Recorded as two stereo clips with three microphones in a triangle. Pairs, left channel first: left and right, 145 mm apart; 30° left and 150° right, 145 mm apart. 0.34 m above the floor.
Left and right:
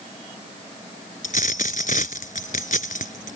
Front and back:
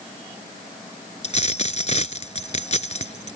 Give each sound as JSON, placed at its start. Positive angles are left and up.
{"t": 1.2, "sound": "a dropped coin", "azimuth_deg": 70}